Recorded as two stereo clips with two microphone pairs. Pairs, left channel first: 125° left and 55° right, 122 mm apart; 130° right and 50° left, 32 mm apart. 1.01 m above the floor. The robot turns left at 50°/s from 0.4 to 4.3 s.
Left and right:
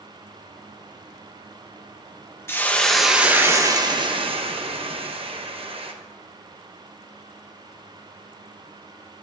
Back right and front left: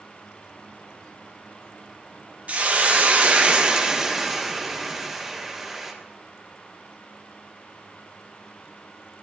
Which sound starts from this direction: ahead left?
A hiss, at 2.5 s.